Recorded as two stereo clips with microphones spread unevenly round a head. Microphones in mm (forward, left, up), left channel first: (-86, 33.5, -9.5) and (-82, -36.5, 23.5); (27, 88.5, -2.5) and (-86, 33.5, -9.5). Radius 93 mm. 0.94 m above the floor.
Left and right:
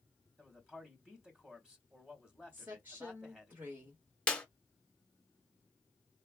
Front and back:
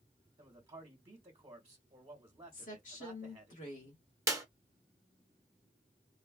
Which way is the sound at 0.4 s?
170° left.